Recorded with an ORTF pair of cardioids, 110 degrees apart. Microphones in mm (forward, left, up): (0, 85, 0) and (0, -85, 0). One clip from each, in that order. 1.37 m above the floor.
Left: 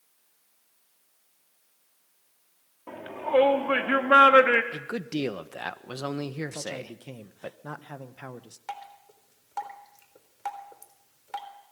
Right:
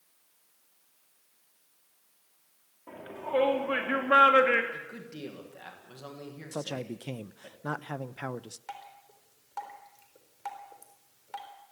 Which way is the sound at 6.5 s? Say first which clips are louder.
Even; 20° right.